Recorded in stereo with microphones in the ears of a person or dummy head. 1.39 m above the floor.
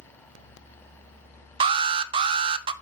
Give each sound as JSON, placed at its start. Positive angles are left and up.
{"t": 1.6, "sound": "an alarm", "side_deg": -25, "distance_m": 0.6}